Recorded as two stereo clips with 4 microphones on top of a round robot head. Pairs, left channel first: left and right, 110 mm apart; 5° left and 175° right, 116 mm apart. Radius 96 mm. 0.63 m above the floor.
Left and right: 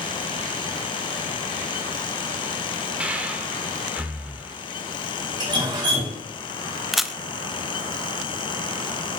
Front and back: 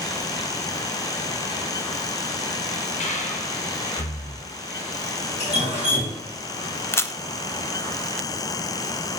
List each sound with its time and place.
3.0 s breathing: 10° right, 1.4 m
5.4 s dripping: 45° right, 3.5 m
6.9 s a camera shutter: 5° right, 0.7 m